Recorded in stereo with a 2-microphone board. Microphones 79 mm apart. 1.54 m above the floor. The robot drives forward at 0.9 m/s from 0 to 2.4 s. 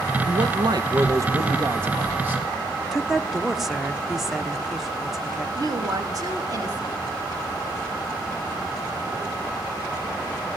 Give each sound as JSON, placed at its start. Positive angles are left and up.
{"t": 0.3, "sound": "a man speaking", "side_deg": -70, "distance_m": 1.0}
{"t": 2.9, "sound": "a woman speaking", "side_deg": -5, "distance_m": 0.9}
{"t": 5.5, "sound": "a woman speaking", "side_deg": -50, "distance_m": 2.5}